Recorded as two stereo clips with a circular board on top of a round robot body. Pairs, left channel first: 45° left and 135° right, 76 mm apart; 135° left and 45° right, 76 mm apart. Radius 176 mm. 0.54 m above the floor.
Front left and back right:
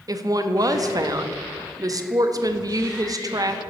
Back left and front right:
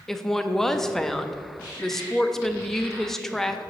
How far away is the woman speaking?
About 0.7 m.